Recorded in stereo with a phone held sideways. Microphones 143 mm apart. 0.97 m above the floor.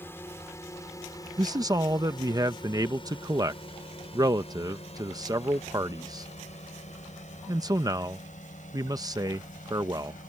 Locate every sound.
0.0 s a drone: 15° left (ahead or behind); by 10.3 s 65° left (ahead or behind)
1.4 s a man speaking: 25° right (ahead or behind)